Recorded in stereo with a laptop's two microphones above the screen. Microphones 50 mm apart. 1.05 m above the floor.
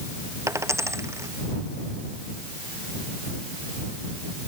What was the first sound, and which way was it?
A dropped coin, 70° right (ahead or behind).